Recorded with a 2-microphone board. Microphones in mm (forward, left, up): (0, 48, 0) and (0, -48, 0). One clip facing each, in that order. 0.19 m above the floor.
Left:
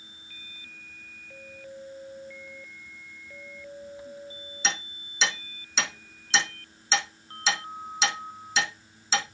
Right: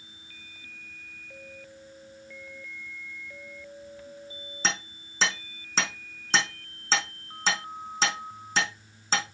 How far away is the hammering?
About 5 m.